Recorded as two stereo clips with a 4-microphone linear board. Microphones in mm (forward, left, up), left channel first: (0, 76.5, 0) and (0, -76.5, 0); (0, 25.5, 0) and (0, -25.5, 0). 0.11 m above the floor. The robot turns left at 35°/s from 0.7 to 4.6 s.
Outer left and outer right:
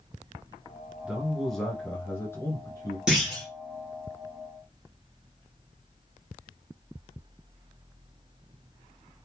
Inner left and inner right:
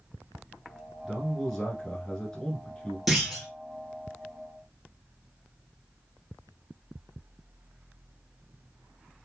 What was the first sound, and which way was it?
A man speaking, 170° right.